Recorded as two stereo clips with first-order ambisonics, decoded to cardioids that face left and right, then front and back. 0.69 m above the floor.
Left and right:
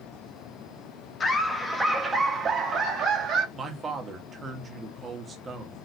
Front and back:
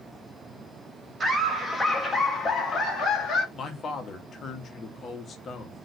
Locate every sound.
1.2 s laughter: 130° left, 0.7 m; by 3.5 s 55° right, 1.1 m
3.5 s a man speaking: 35° right, 0.6 m